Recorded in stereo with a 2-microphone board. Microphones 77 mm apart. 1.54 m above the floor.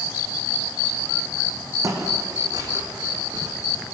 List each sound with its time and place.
1.8 s footsteps: 45° right (ahead or behind), 4 m; by 3.5 s 65° right (ahead or behind), 4.5 m